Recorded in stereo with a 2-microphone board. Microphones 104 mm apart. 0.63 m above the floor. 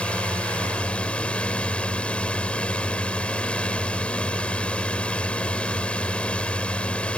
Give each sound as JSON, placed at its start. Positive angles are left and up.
{"t": 0.0, "sound": "a drone", "side_deg": 10}